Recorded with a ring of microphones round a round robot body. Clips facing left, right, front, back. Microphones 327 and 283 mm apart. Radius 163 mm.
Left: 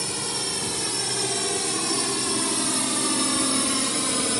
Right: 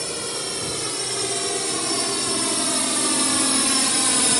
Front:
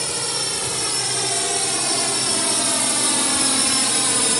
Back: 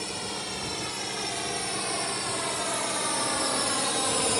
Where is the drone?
10° left; by 4.4 s 25° right.